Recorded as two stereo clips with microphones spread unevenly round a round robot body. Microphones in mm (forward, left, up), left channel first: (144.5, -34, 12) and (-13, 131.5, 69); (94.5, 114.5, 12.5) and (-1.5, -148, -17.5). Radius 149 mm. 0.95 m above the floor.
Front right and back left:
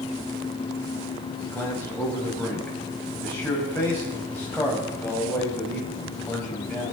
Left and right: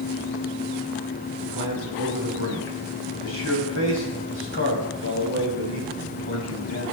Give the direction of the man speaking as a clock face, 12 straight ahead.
11 o'clock.